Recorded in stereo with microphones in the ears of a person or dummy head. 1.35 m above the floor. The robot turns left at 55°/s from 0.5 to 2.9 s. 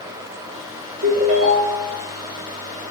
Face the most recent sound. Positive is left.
turn(degrees=145)